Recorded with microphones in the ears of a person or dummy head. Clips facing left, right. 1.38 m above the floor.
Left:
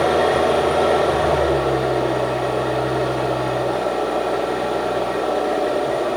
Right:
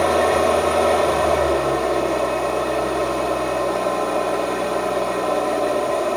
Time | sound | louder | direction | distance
0.0 | an engine running | even | 10° left (ahead or behind) | 1.2 m